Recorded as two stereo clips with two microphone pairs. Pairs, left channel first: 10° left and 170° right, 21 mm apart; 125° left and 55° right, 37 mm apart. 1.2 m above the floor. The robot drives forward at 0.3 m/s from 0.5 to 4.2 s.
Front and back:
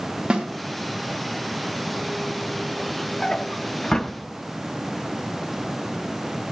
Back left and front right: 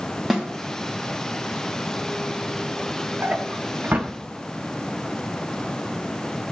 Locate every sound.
0.3 s a snare drum: 135° right, 1.9 m
3.2 s a drawer: 35° right, 1.0 m; by 4.1 s 50° right, 0.9 m